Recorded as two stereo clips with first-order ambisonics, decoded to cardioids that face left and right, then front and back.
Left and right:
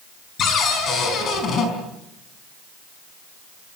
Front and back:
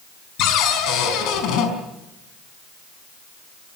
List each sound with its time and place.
0.4 s a cupboard door: 35° left, 5 m